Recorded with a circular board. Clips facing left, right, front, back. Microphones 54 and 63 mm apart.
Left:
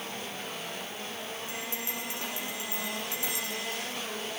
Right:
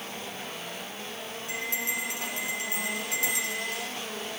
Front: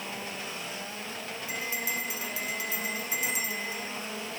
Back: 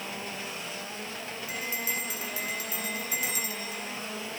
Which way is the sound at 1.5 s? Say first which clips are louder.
Right 4 dB, front 1 dB; 65° right.